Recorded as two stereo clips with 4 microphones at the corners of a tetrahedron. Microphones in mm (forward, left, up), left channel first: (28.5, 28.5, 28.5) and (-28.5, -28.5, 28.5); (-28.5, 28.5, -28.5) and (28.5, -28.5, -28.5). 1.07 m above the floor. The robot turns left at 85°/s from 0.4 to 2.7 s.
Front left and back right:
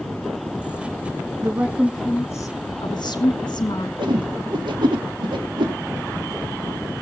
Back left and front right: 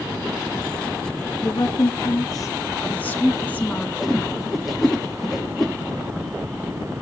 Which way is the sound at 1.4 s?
175° left.